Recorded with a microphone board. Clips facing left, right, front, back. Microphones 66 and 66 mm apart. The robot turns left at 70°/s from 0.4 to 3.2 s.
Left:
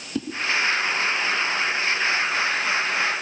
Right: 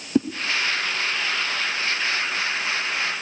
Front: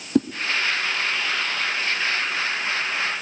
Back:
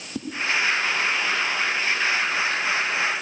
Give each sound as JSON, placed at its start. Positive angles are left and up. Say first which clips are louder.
{"t": 0.1, "sound": "a whoosh", "louder": "right 8 dB, front 13 dB", "azimuth_deg": -30, "distance_m": 0.8}